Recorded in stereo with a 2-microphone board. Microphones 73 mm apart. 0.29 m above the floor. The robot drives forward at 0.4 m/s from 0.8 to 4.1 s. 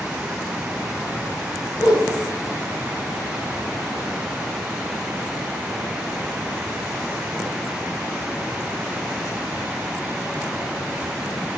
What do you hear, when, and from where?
1.8 s a whoosh: 80° left, 5.5 m